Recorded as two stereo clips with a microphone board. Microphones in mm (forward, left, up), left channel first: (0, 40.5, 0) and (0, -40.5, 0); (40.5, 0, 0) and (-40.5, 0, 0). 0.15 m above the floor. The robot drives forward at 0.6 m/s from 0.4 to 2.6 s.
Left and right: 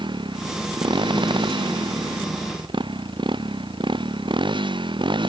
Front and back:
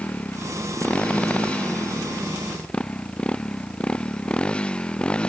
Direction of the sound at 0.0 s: 75° right.